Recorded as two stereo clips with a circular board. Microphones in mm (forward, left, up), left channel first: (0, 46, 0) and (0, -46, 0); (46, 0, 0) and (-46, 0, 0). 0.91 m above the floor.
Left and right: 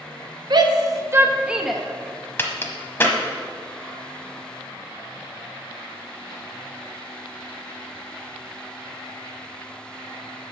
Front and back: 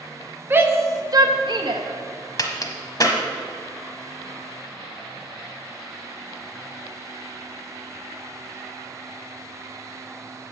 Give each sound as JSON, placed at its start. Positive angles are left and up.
{"t": 0.5, "sound": "a shout", "azimuth_deg": -115, "distance_m": 1.1}
{"t": 2.4, "sound": "a crack", "azimuth_deg": 30, "distance_m": 1.0}